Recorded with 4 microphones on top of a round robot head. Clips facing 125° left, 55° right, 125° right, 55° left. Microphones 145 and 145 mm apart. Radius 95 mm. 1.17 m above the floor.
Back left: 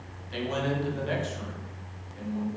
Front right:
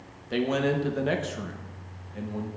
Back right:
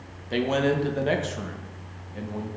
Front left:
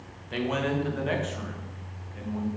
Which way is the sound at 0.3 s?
75° right.